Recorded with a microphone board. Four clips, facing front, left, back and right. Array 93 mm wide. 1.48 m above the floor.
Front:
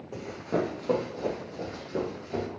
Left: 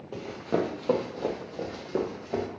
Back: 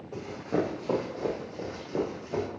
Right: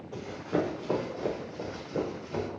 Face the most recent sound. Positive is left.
turn(degrees=110)